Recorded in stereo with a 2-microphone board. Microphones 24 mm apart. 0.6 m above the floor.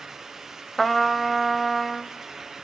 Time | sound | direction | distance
0.8 | a trumpet | 5° left (ahead or behind) | 0.7 m